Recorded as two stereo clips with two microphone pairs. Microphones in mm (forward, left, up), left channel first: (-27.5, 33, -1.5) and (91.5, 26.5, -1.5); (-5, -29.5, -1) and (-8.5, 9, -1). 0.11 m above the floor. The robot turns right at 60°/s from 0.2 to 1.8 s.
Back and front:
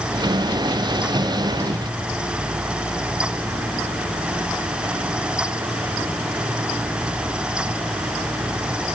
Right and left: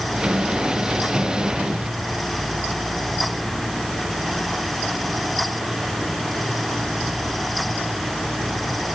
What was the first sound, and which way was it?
Only background noise.